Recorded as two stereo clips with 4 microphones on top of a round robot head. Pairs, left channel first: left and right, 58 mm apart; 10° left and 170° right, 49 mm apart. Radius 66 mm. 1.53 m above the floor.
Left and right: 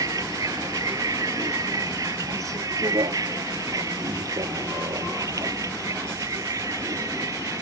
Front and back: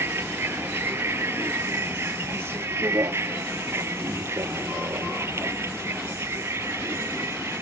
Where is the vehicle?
120° right; by 7.6 s 125° right.